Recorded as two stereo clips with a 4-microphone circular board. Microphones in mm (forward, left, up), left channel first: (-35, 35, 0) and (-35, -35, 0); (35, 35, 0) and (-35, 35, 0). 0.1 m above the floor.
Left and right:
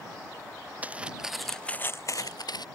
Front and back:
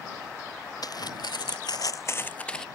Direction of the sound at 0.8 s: 20° right.